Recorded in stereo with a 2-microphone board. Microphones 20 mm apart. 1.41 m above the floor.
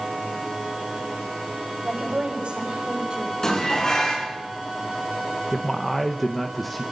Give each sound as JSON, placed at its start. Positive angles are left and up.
{"t": 1.8, "sound": "a woman speaking", "side_deg": -70, "distance_m": 8.0}
{"t": 3.4, "sound": "dishes clattering", "side_deg": 35, "distance_m": 9.5}
{"t": 5.5, "sound": "a man speaking", "side_deg": 10, "distance_m": 1.2}